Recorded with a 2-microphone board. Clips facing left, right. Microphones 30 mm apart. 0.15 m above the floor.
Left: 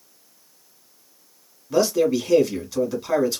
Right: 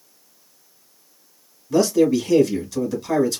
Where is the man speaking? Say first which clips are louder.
Right 2 dB; 15° left (ahead or behind), 1.2 m.